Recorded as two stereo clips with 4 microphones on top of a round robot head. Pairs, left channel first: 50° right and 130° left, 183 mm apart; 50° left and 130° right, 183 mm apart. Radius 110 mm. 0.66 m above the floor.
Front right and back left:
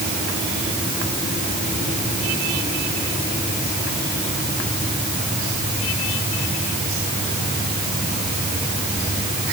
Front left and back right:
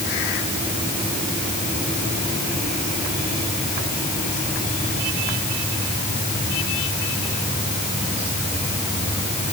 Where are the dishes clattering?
I don't hear dishes clattering.